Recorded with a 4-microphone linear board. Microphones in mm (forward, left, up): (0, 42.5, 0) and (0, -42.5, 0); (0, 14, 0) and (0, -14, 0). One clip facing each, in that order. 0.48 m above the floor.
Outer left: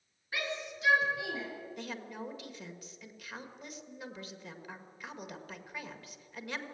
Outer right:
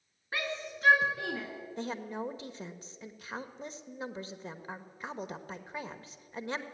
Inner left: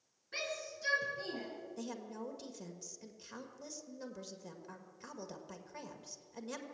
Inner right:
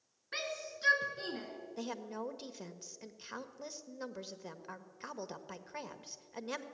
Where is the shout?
40° right (ahead or behind), 5.5 m; by 1.5 s 50° right (ahead or behind), 5 m.